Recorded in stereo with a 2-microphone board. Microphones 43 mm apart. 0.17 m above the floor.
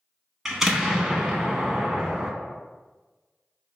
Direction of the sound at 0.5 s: 5° right (ahead or behind).